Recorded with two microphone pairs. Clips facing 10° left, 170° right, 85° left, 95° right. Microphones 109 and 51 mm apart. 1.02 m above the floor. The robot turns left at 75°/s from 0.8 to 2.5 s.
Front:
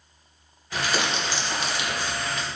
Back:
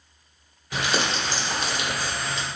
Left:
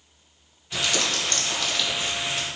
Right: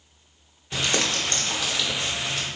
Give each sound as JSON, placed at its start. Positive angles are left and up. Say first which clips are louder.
{"t": 0.7, "sound": "crumpling", "louder": "back 1 dB, right 1 dB", "azimuth_deg": -100, "distance_m": 0.9}